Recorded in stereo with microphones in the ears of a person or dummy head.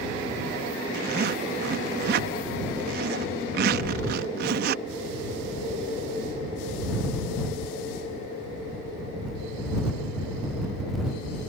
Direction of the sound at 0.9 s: 60° right (ahead or behind).